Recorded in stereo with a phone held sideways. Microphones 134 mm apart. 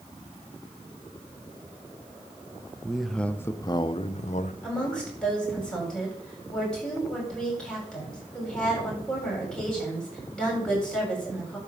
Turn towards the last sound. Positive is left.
turn(degrees=5)  # may be behind; listen again after turning